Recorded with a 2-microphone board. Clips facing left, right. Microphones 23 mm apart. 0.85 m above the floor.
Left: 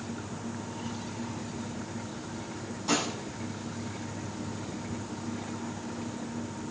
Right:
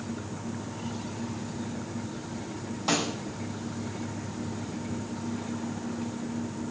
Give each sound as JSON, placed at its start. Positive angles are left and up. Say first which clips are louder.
{"t": 2.9, "sound": "a snare drum", "louder": "right 1 dB", "side_deg": -45, "distance_m": 4.5}